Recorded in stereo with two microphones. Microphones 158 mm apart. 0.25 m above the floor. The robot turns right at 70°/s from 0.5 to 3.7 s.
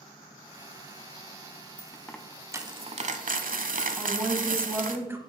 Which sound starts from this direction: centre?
A woman speaking, at 4.0 s.